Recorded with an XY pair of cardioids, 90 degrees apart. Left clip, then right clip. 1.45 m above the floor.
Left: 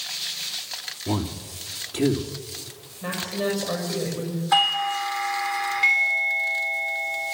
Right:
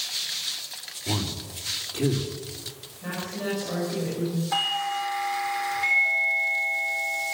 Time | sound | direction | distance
1.1 | a man speaking | 50° left | 2.5 m
3.0 | a woman speaking | 70° left | 5.5 m
4.5 | a doorbell | 70° left | 5 m